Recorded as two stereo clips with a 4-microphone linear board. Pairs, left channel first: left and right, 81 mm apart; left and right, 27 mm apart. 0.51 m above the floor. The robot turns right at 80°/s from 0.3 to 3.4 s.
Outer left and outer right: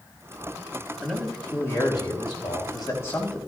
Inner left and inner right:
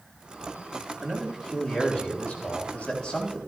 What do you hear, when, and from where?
1.0 s a man speaking: 15° right, 4 m; by 3.4 s 175° left, 4 m